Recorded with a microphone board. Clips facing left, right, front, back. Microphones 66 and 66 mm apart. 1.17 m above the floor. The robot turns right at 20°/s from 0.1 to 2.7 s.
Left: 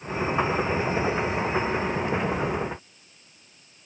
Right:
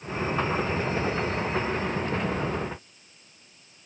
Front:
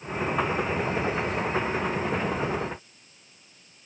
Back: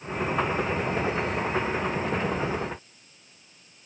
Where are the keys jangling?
No keys jangling in this recording.